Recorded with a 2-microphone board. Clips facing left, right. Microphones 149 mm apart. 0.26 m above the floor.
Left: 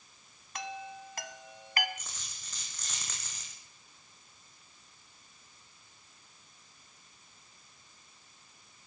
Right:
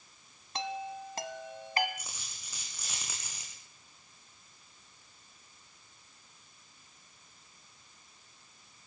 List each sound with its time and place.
0.6 s a chime: 30° right (ahead or behind), 1.4 m
2.0 s a dropped coin: 10° right (ahead or behind), 6 m